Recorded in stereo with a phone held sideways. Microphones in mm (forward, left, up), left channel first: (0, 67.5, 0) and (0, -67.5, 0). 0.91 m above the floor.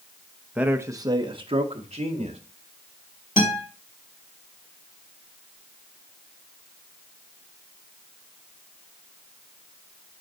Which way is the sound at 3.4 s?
80° left.